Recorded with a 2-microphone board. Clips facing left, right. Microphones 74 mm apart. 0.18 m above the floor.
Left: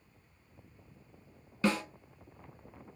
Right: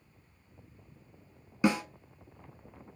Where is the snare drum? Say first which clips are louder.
Right 3 dB; 15° right (ahead or behind), 0.6 m.